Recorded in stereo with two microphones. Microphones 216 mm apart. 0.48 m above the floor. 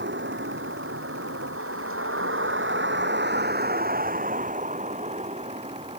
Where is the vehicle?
60° right (ahead or behind); by 6.0 s 25° right (ahead or behind).